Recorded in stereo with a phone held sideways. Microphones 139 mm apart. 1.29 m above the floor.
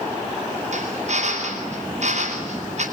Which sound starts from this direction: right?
A drill, at 0.7 s.